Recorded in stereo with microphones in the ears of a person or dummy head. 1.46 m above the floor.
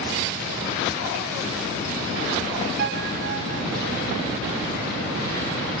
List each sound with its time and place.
2.8 s a piano: 55° right (ahead or behind), 0.5 m